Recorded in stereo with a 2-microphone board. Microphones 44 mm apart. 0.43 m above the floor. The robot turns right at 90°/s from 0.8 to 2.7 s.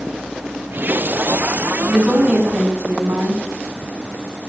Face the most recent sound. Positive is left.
turn(degrees=-105)